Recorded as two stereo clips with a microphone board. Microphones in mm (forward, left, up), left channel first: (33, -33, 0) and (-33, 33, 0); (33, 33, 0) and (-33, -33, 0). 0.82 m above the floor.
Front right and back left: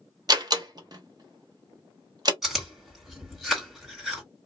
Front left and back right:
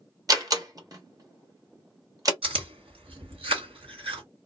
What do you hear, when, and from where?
0.3 s a door slam: 175° left, 1.1 m
2.4 s chewing: 135° right, 2 m